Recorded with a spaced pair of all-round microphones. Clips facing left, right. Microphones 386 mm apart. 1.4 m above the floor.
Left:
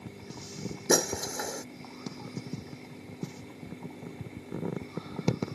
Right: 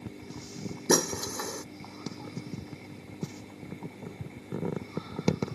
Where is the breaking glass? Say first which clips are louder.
Right 1 dB; 10° right (ahead or behind).